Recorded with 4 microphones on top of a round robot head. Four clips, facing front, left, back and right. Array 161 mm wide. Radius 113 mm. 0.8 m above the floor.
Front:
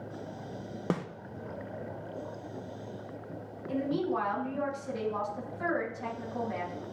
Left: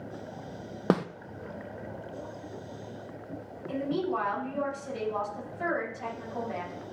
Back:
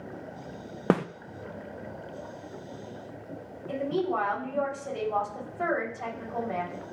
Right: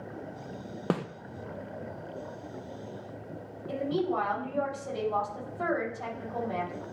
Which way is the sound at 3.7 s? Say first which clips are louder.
Even, back 2 dB; 150° right.